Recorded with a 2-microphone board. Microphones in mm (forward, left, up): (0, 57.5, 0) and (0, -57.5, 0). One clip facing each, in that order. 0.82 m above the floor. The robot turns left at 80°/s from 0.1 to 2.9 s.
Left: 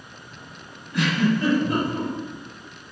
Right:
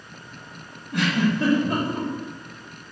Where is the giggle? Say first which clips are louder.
Even; 55° right (ahead or behind), 1.4 m; by 2.1 s 25° right (ahead or behind), 1.4 m.